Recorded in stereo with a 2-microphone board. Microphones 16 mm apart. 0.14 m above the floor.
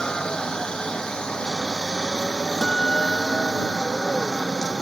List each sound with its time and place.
0.0 s a helicopter: 45° left (ahead or behind); by 4.8 s 50° left (ahead or behind)
2.6 s a guitar: 50° left (ahead or behind)